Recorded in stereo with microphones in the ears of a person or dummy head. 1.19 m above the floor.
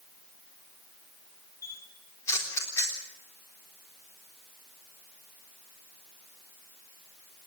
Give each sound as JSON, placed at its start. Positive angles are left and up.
{"t": 1.6, "sound": "a camera shutter", "side_deg": 15, "distance_m": 3.5}